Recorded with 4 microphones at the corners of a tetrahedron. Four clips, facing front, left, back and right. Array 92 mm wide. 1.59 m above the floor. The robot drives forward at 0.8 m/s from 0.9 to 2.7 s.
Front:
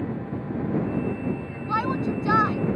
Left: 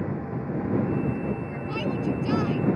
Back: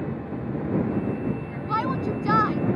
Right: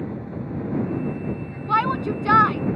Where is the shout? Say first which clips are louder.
Right 8 dB, even; 90° right; by 2.6 s 95° right.